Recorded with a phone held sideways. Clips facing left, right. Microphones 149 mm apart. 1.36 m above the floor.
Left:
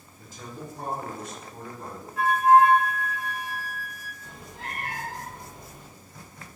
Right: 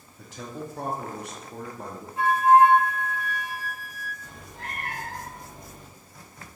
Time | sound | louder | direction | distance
0.2 | a man speaking | right 4 dB | 70° right (ahead or behind) | 0.6 m
2.2 | a flute | right 1 dB | 25° right (ahead or behind) | 0.6 m
4.2 | a cat meowing | left 1 dB | 50° right (ahead or behind) | 1.0 m